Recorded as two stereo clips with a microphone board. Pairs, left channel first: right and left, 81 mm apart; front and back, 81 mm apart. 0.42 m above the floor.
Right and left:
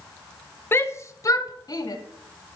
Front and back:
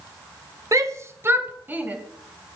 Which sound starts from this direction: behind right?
A shout, at 0.7 s.